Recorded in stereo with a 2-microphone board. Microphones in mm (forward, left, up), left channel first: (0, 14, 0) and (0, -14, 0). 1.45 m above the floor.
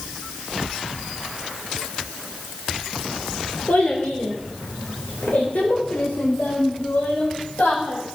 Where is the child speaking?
70° left (ahead or behind), 3 m; by 8.0 s 85° left, 5 m.